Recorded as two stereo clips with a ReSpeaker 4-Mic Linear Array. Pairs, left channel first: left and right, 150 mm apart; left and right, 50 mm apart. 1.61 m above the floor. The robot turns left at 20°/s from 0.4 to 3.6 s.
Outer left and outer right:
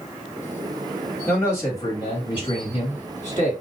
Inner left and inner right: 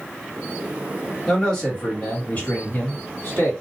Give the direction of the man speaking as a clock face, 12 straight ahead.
6 o'clock.